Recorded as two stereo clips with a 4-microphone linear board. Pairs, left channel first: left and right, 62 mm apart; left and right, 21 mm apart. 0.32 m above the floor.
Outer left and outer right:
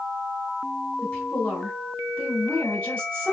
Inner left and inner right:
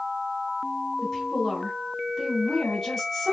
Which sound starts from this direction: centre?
A woman speaking, at 1.0 s.